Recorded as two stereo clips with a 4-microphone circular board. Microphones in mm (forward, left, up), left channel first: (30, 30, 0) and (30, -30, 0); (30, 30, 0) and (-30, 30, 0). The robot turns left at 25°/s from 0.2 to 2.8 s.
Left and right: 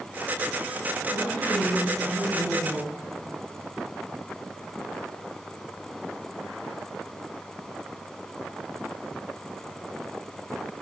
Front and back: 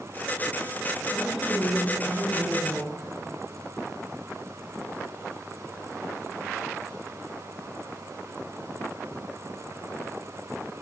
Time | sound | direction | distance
1.1 | a woman speaking | 100° right | 4.5 m